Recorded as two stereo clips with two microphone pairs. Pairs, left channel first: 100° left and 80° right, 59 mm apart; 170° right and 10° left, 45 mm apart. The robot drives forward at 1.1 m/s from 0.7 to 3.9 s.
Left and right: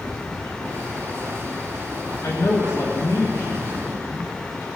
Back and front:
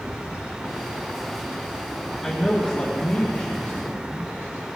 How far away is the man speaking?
About 2.5 m.